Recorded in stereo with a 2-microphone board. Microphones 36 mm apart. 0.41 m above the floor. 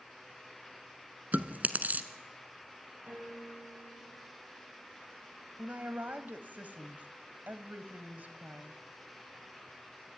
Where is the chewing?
55° right (ahead or behind), 1.2 m.